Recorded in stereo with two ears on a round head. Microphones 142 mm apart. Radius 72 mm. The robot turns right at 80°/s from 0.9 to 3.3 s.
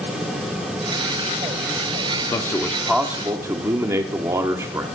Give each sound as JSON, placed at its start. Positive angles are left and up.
{"t": 2.3, "sound": "a man speaking", "azimuth_deg": 140, "distance_m": 1.5}